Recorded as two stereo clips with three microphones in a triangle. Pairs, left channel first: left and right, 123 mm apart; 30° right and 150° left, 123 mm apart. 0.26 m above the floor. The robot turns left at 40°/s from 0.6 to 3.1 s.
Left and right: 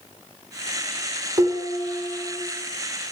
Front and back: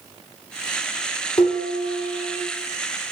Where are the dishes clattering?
45° right, 1.4 m; by 2.4 s 85° right, 1.4 m.